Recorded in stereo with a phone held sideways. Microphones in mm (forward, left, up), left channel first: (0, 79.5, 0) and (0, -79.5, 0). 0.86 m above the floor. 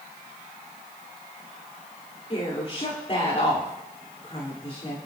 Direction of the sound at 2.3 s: 40° left (ahead or behind).